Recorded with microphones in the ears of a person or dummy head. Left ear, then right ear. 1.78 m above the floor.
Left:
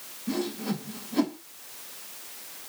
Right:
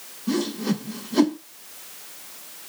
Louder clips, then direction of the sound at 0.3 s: Right 5 dB; 75° right (ahead or behind).